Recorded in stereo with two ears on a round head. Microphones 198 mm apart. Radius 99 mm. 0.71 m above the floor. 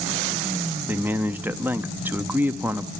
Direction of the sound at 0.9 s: 10° right (ahead or behind).